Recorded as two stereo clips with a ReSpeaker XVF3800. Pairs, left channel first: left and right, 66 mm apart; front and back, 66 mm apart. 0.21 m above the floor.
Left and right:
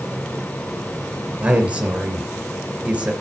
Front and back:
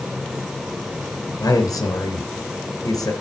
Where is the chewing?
No chewing in this recording.